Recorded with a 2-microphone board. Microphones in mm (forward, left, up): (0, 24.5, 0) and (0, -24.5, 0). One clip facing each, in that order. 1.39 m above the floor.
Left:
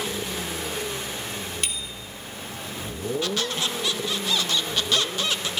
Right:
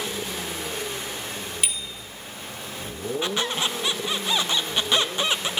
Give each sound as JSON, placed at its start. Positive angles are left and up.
{"t": 1.6, "sound": "a bicycle bell", "side_deg": -10, "distance_m": 2.5}
{"t": 3.2, "sound": "a squeak", "side_deg": -20, "distance_m": 0.6}